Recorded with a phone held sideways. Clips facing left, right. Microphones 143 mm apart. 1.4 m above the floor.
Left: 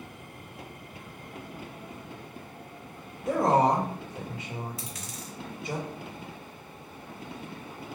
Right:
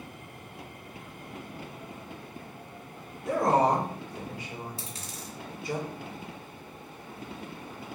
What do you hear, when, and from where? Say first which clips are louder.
3.3 s a woman speaking: left 1 dB; 20° left (ahead or behind), 1.2 m
4.8 s a dropped coin: left 1 dB; 30° right (ahead or behind), 0.9 m